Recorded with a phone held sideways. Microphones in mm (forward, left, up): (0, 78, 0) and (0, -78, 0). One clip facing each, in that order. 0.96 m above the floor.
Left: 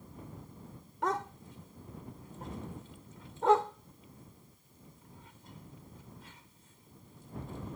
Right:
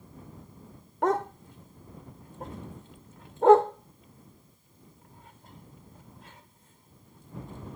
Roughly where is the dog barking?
Right.